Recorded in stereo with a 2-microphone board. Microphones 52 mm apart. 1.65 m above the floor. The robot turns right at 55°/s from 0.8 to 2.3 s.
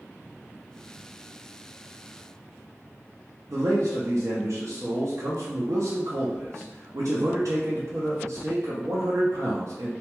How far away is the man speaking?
About 0.5 m.